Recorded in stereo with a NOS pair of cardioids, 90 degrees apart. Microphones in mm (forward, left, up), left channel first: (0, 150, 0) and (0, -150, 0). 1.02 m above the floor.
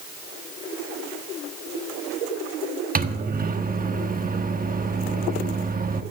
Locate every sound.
3.0 s a microwave: 25° right, 1.3 m